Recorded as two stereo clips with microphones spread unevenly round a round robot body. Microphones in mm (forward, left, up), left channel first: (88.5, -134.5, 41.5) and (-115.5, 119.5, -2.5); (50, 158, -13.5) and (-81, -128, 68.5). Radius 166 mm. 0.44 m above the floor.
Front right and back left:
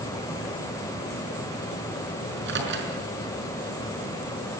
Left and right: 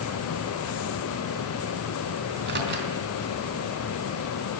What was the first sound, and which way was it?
A microwave, 175° right.